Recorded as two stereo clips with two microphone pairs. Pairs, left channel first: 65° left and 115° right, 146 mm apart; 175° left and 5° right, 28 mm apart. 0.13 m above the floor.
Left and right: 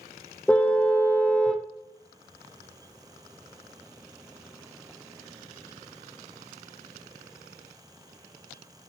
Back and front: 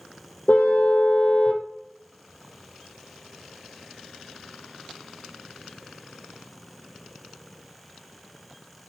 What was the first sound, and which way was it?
A car horn, 145° left.